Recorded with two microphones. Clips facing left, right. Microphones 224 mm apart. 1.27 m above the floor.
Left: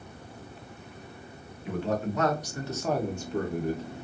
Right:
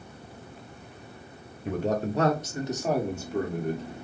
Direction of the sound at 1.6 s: 45° right (ahead or behind).